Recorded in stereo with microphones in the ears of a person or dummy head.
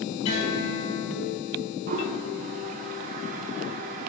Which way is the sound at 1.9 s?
40° right (ahead or behind).